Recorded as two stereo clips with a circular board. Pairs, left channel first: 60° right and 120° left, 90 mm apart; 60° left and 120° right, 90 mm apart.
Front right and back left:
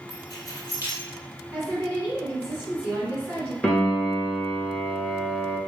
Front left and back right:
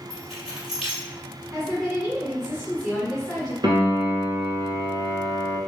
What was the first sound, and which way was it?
Keys jangling, 35° right.